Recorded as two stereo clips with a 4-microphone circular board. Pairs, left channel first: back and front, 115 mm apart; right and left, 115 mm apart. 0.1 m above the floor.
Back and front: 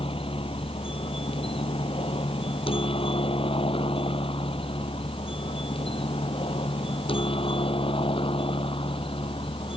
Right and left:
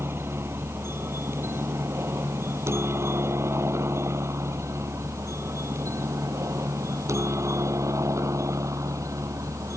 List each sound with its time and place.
0.0 s a helicopter: 155° left; by 9.8 s 150° left